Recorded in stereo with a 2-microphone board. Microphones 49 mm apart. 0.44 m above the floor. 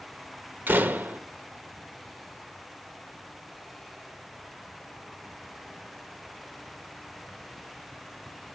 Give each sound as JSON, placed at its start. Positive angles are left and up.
{"t": 0.7, "sound": "a door slam", "side_deg": -40, "distance_m": 1.0}